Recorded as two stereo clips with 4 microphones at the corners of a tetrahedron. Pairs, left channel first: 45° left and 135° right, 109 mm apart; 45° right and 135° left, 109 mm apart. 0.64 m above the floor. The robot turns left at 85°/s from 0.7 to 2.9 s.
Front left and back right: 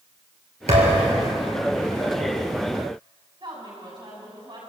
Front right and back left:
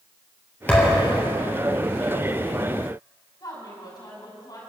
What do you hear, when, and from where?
0.7 s a thud: 120° right, 3.5 m; by 1.2 s 165° right, 3.5 m
3.4 s a woman speaking: 90° right, 6 m